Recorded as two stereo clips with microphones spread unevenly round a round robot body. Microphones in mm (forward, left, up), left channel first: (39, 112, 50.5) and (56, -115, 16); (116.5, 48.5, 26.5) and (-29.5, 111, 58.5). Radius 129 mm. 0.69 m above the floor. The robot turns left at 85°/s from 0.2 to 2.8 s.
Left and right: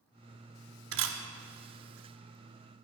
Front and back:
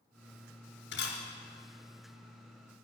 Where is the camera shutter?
60° right, 1.3 m; by 1.2 s 85° right, 1.3 m.